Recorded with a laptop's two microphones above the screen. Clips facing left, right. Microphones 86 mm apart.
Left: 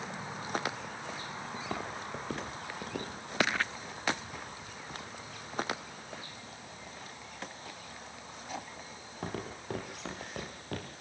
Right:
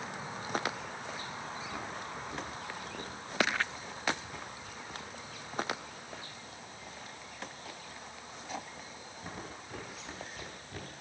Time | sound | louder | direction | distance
1.5 | footsteps | left 2 dB | 85° left | 8 m